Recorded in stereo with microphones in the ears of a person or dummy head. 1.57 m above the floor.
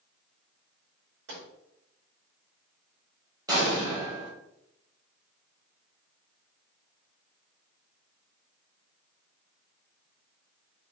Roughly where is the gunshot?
Right.